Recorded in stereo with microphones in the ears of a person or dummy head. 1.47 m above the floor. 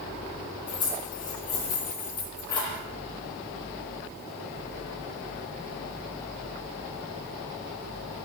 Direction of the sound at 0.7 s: 20° left (ahead or behind).